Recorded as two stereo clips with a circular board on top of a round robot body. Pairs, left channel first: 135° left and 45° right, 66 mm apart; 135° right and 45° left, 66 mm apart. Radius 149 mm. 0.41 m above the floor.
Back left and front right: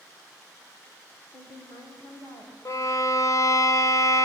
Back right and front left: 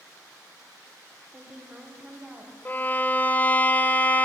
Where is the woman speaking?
115° left, 3.5 m; by 2.5 s 110° left, 4.5 m.